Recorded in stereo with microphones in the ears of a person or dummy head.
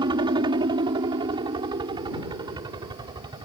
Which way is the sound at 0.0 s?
25° right (ahead or behind).